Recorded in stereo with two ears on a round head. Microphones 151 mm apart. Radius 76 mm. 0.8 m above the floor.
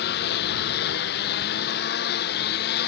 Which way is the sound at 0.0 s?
70° left (ahead or behind).